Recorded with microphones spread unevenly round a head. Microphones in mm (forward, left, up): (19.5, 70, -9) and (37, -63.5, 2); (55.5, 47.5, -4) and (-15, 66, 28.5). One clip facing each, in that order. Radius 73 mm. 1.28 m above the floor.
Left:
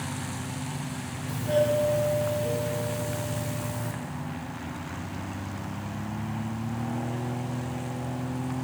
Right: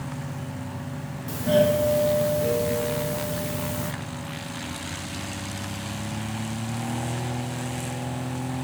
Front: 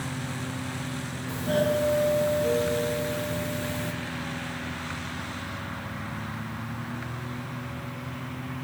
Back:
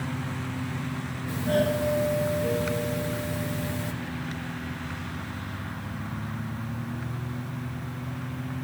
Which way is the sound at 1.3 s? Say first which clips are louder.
Right 4 dB, even; 110° right.